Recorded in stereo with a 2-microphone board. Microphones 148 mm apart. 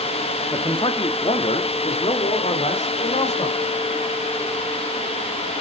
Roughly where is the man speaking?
Left.